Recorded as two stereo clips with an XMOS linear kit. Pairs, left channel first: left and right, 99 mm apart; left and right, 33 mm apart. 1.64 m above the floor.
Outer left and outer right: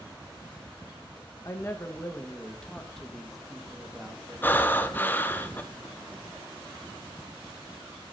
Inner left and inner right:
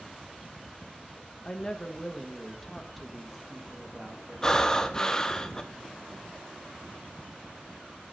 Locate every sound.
1.4 s a woman speaking: 30° left (ahead or behind), 1.4 m; by 5.4 s 20° right (ahead or behind), 2.5 m
4.4 s breathing: 20° left (ahead or behind), 0.8 m